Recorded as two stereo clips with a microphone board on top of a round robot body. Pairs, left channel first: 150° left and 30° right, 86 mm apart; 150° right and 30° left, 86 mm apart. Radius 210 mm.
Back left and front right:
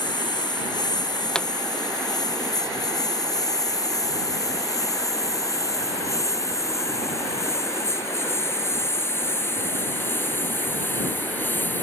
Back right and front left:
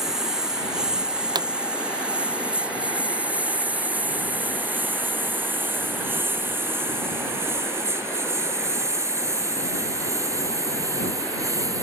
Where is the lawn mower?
115° left; by 11.8 s 80° left.